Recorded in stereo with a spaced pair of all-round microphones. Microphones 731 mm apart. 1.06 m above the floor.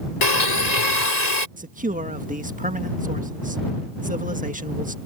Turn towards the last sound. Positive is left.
turn(degrees=-10)  # may be behind; listen again after turning